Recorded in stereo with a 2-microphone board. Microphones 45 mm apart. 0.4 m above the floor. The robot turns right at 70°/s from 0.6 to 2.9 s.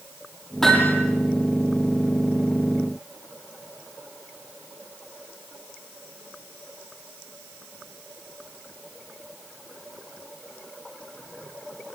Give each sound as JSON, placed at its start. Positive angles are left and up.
{"t": 0.6, "sound": "hammering", "side_deg": 5, "distance_m": 9.0}